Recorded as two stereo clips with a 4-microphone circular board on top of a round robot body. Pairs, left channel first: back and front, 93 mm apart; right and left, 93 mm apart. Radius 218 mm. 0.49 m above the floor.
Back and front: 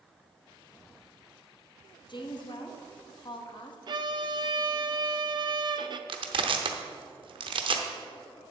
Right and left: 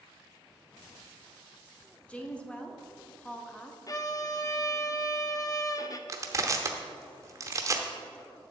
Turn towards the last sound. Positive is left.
turn(degrees=30)